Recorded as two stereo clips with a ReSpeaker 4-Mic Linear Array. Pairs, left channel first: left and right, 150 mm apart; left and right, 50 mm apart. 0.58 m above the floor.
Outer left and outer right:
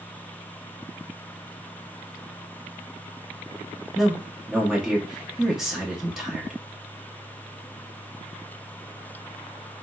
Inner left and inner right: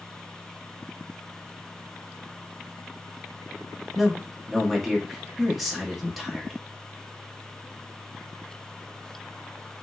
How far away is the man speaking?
About 0.8 m.